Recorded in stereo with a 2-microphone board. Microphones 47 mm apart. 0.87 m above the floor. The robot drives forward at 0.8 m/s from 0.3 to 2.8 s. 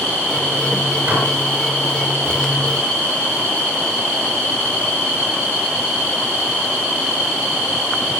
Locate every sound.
1.1 s dishes clattering: 45° right (ahead or behind), 9.5 m